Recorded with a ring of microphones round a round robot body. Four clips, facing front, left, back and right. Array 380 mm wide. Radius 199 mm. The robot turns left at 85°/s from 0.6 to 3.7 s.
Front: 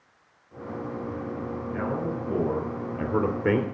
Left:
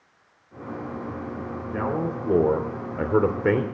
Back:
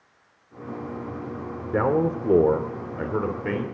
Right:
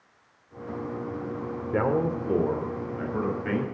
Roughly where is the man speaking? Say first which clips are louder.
Right 2 dB, back 9 dB; behind right.